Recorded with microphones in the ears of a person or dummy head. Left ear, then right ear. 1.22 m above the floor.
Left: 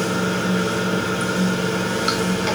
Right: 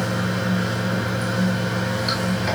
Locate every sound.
0.0 s running water: 45° left (ahead or behind), 1.5 m